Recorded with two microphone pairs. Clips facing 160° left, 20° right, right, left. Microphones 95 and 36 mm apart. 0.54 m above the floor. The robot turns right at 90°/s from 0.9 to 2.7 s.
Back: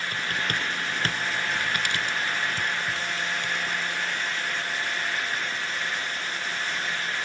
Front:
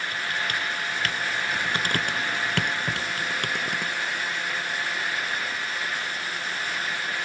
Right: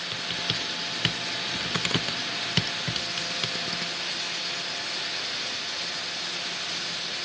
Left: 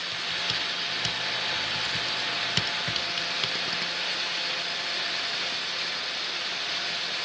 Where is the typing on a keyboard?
160° right; by 3.9 s 5° left.